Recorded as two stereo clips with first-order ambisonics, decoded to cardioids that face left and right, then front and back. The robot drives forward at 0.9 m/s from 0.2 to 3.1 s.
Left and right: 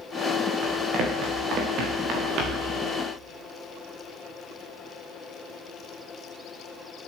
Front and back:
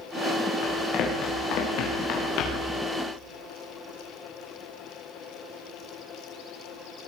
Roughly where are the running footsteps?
Ahead right.